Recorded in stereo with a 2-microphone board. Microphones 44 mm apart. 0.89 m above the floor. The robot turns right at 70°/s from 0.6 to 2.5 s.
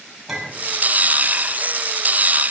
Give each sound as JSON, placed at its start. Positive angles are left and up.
{"t": 0.3, "sound": "a clink", "side_deg": 0, "distance_m": 5.0}